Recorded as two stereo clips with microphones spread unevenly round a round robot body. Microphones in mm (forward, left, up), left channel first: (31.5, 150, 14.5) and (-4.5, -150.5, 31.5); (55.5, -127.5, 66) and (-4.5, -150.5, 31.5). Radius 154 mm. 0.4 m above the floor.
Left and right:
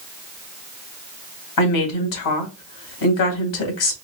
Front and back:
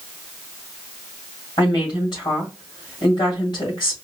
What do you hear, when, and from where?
1.6 s a woman speaking: 75° left, 2 m